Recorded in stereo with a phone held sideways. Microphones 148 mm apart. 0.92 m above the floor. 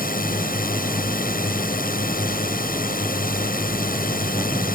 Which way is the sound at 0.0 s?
75° left (ahead or behind).